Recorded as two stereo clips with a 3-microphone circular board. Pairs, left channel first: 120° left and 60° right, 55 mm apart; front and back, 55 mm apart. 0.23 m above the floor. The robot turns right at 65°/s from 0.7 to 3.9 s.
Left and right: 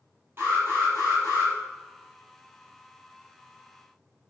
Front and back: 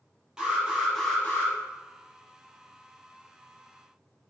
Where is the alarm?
100° right, 5 m; by 1.5 s 50° right, 5 m.